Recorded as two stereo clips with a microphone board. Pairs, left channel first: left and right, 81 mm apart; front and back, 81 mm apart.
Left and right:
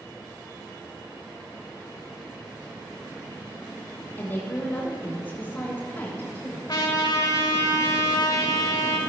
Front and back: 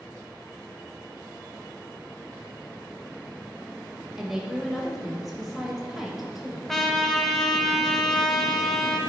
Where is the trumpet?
85° left, 0.9 m.